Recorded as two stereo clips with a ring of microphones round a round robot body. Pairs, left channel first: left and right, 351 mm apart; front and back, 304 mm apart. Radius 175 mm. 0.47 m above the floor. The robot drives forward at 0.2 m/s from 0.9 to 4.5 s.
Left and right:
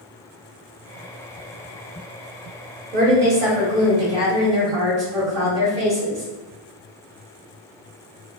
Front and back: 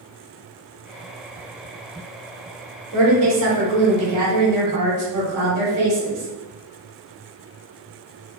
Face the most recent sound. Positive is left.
turn(degrees=-160)